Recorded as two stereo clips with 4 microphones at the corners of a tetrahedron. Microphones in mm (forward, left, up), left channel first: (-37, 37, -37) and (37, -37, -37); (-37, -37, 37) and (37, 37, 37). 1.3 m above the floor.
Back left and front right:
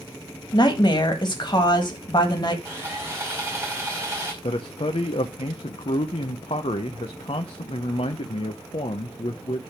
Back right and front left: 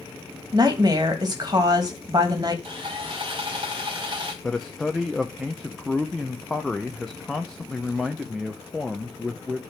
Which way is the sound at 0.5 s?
95° left.